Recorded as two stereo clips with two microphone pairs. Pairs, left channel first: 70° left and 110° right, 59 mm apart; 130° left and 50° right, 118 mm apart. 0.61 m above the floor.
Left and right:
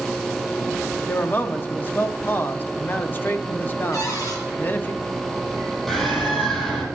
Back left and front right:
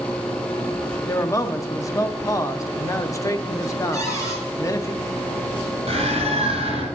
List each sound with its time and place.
1.1 s a man speaking: 85° left, 0.6 m
3.9 s a cupboard door: 65° left, 4.5 m
5.9 s a bird: 10° right, 5 m